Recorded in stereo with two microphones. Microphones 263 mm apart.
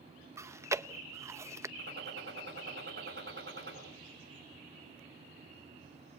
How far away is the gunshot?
About 6.5 m.